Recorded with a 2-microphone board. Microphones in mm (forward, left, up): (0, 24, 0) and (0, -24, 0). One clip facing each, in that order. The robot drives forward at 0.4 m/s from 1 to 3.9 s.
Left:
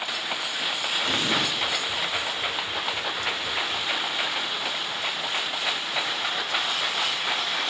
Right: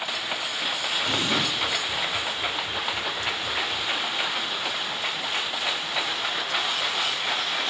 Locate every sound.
1.1 s an explosion: 15° left (ahead or behind), 4 m